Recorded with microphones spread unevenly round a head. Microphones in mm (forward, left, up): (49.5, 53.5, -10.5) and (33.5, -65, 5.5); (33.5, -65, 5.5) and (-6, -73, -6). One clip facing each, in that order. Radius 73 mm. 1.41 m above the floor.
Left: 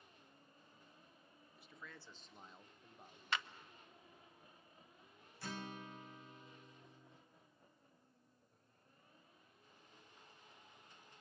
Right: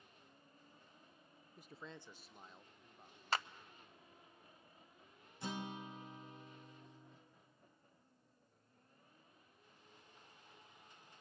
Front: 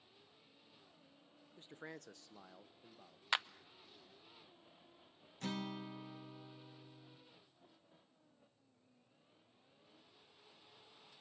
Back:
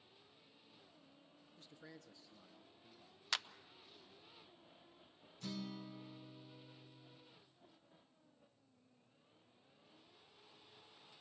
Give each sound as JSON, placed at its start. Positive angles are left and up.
{"t": 1.6, "sound": "a man speaking", "azimuth_deg": -55, "distance_m": 0.6}
{"t": 3.3, "sound": "a clap", "azimuth_deg": -50, "distance_m": 0.5}
{"t": 5.4, "sound": "a guitar", "azimuth_deg": -25, "distance_m": 1.8}